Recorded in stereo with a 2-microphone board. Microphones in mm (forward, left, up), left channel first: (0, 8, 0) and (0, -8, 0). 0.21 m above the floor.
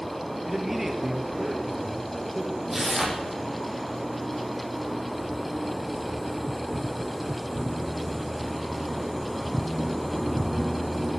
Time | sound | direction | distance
0.5 | a man speaking | 10° right (ahead or behind) | 4.5 m
2.7 | tearing paper | 15° right (ahead or behind) | 7.5 m